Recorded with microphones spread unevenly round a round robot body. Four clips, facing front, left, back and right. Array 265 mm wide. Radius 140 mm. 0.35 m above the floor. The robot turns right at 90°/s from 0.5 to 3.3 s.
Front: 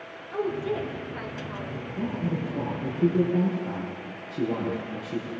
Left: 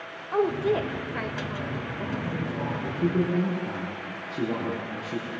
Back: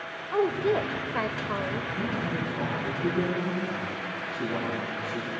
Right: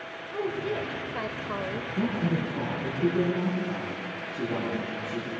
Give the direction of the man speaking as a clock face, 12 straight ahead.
2 o'clock.